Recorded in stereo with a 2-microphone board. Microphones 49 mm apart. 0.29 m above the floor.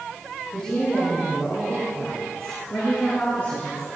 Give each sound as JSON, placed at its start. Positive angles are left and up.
{"t": 0.5, "sound": "a woman speaking", "side_deg": 20, "distance_m": 7.0}